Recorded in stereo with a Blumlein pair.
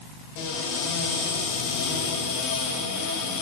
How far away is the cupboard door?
About 6 m.